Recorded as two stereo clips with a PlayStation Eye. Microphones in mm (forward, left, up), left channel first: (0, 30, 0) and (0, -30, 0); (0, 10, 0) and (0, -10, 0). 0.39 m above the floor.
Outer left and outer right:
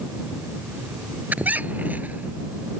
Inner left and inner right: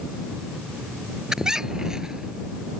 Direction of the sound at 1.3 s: 25° right (ahead or behind).